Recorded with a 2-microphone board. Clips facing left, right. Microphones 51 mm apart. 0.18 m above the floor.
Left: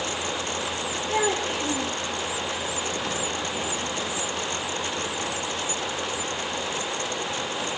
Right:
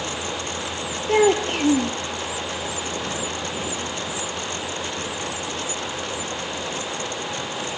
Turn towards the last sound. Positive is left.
turn(degrees=-60)  # may be behind; listen again after turning